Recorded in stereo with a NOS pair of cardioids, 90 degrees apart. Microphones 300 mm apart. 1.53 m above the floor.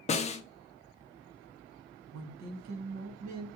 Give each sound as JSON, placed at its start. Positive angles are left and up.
{"t": 0.1, "sound": "a snare drum", "azimuth_deg": 20, "distance_m": 0.5}
{"t": 2.1, "sound": "a woman speaking", "azimuth_deg": -65, "distance_m": 1.4}